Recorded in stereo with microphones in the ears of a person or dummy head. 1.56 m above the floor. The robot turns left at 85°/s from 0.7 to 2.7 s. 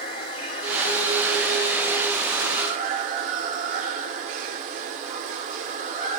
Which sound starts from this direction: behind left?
Running water, at 0.0 s.